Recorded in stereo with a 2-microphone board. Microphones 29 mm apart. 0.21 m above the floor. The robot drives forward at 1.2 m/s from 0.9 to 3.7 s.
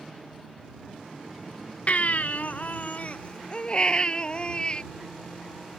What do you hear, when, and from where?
1.9 s a baby crying: 50° left (ahead or behind); by 4.8 s 35° left (ahead or behind)